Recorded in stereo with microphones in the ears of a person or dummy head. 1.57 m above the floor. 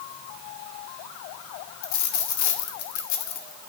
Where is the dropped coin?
60° left (ahead or behind), 1.8 m.